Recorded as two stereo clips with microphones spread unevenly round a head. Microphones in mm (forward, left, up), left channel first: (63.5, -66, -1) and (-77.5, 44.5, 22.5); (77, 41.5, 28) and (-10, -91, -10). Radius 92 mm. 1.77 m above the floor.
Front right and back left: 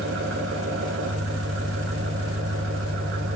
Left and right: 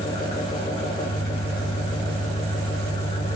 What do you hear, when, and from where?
0.0 s an engine running: 120° left, 3 m